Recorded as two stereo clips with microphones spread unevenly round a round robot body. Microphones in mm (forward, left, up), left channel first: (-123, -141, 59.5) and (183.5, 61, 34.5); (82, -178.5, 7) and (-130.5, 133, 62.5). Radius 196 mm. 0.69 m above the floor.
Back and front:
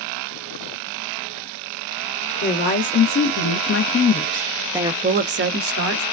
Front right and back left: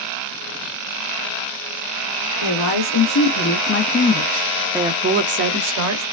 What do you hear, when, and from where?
2.4 s a woman speaking: 95° right, 1.3 m; by 6.0 s 75° left, 0.9 m